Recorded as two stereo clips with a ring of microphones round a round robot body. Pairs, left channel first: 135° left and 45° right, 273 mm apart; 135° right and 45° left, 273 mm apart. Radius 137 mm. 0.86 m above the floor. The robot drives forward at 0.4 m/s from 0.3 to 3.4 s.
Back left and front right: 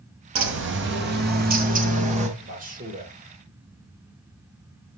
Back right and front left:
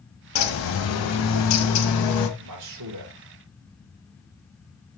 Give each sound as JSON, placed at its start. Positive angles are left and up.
{"t": 0.3, "sound": "a bird", "azimuth_deg": -90, "distance_m": 1.9}
{"t": 2.4, "sound": "a man speaking", "azimuth_deg": 15, "distance_m": 2.5}